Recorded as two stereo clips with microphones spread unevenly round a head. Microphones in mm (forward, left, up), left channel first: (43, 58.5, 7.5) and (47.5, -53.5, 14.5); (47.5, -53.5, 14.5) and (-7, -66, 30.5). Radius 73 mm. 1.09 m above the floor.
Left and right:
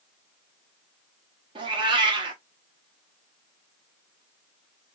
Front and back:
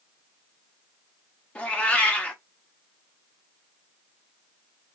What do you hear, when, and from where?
1.6 s a cat meowing: 65° right, 0.7 m